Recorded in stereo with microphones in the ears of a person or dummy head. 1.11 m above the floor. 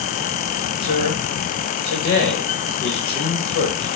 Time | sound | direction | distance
0.8 | a man speaking | 55° left (ahead or behind) | 1.6 m